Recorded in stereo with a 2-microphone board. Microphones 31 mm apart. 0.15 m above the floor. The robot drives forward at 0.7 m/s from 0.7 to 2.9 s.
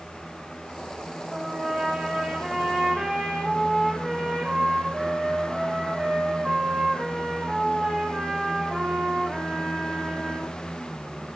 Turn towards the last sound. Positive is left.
turn(degrees=0)  # may be behind; listen again after turning